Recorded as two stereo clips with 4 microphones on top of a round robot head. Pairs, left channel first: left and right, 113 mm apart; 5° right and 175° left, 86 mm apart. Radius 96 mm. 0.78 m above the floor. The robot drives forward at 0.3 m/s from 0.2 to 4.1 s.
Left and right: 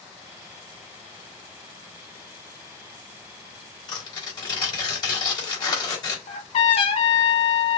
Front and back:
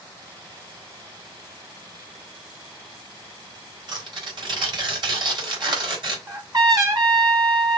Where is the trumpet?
125° left, 1.5 m.